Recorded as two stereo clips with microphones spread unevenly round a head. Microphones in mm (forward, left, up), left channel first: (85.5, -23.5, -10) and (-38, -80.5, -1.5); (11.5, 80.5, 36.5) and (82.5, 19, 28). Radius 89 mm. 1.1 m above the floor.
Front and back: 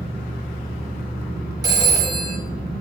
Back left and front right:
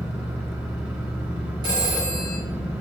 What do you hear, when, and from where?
0.0 s an engine running: 30° left, 2 m
1.6 s a phone ringing: 95° right, 1.4 m